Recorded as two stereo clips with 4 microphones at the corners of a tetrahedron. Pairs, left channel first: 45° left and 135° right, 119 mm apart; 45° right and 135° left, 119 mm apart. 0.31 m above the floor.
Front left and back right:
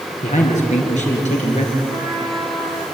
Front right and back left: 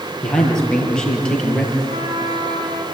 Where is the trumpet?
130° left, 10 m.